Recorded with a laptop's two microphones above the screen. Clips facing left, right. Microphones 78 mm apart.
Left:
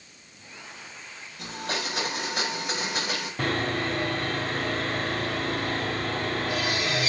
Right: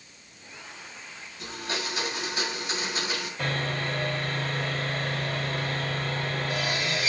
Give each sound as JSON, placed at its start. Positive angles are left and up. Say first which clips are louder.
{"t": 1.4, "sound": "a blender", "louder": "left 2 dB", "side_deg": 75, "distance_m": 6.0}
{"t": 3.4, "sound": "sawing", "louder": "left 4 dB", "side_deg": 70, "distance_m": 3.0}